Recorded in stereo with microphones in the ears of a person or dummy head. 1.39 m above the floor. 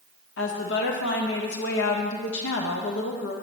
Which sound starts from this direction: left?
A woman speaking, at 0.4 s.